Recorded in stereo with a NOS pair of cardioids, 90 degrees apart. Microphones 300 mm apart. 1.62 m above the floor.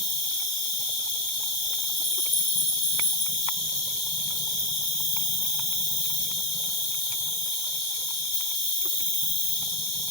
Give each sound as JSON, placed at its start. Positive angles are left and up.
{"t": 0.0, "sound": "an insect", "azimuth_deg": 60, "distance_m": 1.6}